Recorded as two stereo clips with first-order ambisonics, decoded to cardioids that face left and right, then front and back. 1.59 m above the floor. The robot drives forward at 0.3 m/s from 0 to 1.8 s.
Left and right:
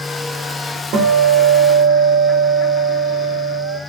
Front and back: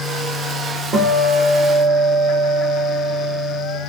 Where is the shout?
No shout in this recording.